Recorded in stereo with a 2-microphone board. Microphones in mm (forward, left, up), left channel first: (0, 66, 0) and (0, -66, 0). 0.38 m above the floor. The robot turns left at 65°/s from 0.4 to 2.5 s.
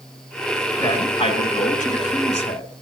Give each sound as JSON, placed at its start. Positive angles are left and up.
{"t": 0.8, "sound": "a man speaking", "azimuth_deg": 155, "distance_m": 3.0}